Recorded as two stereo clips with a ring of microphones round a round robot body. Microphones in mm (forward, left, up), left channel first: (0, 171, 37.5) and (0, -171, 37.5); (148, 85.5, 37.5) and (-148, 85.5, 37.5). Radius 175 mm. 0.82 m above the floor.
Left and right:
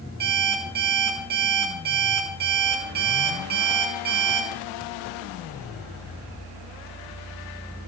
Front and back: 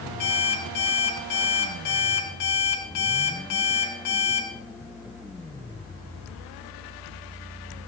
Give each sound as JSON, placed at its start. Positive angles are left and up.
{"t": 0.2, "sound": "an alarm clock", "azimuth_deg": -25, "distance_m": 4.5}